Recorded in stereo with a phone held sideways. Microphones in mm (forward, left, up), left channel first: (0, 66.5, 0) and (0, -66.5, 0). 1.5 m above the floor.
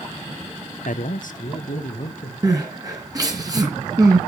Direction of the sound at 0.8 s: 70° left (ahead or behind).